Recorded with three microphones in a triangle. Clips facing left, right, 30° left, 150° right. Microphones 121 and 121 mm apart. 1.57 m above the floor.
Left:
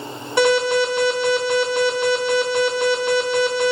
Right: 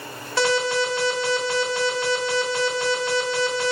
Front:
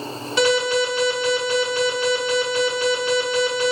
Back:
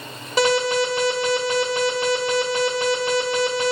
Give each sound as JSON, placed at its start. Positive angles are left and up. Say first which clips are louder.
{"t": 0.4, "sound": "an alarm", "louder": "left 5 dB, even", "azimuth_deg": 165, "distance_m": 2.5}